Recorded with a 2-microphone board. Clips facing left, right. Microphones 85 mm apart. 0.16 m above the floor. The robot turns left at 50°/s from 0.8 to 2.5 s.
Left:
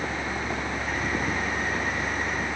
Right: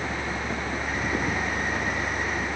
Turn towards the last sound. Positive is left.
No sound to turn to.